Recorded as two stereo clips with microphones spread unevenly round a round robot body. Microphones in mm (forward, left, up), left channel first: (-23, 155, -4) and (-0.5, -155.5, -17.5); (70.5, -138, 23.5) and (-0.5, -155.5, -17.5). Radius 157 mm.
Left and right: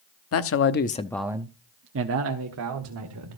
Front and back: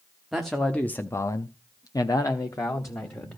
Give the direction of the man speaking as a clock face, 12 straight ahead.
8 o'clock.